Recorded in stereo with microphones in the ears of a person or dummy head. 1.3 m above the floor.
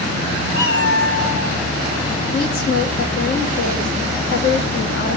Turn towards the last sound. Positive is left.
turn(degrees=50)  # may be behind; listen again after turning